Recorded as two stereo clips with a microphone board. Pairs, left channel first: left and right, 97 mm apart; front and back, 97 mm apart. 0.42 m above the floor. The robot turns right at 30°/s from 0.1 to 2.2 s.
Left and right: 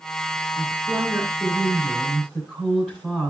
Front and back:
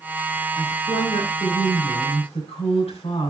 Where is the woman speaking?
50° right, 3 m; by 3.3 s 5° right, 3 m.